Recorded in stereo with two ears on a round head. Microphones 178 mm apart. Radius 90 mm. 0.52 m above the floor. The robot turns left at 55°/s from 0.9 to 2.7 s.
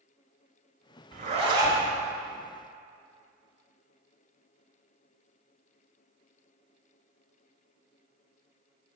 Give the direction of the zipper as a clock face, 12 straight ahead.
4 o'clock.